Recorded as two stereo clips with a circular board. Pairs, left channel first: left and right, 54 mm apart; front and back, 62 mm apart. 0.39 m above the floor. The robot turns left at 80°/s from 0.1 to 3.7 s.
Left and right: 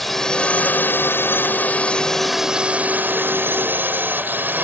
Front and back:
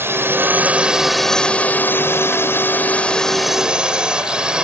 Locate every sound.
0.0 s a drone: 175° left; by 4.6 s 115° right